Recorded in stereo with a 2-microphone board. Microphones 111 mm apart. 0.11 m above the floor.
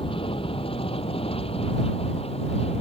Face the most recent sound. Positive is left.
turn(degrees=65)  # may be behind; listen again after turning